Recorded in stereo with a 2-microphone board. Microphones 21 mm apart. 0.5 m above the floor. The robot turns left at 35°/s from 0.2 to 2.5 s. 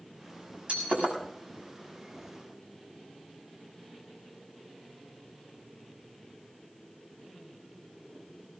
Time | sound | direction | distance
0.7 | breaking glass | 75° right (ahead or behind) | 6.5 m